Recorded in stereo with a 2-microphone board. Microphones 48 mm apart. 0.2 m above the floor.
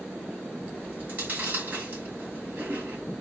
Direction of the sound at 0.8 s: 40° right (ahead or behind).